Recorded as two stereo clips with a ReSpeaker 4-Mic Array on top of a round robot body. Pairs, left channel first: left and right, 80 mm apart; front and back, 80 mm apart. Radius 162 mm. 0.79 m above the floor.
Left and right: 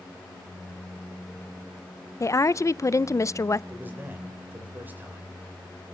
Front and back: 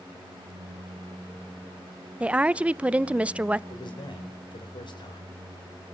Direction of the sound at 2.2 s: 115° left.